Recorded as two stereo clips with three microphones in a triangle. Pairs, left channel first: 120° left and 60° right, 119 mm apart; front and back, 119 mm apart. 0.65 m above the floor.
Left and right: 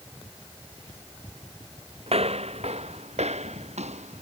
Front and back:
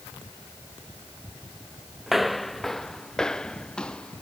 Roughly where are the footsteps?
Right.